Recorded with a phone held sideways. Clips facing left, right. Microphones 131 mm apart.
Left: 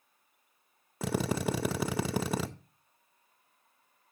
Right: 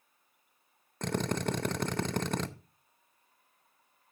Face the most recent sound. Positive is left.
turn(degrees=5)  # may be behind; listen again after turning